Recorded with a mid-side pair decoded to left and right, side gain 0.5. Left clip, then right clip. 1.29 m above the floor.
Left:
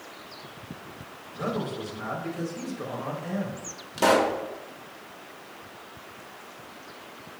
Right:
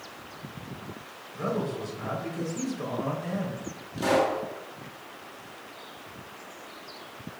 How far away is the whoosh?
I don't hear a whoosh.